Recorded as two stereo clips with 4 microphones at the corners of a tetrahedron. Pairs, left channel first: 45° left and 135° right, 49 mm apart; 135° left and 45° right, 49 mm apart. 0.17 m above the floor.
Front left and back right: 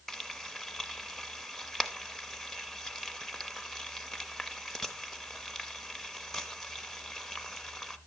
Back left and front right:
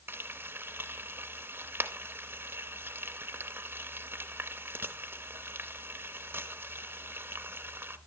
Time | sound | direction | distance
0.1 | frying | 40° right | 0.7 m